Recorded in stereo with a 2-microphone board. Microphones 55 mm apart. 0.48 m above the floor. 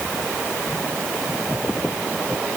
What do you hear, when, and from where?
Only background noise.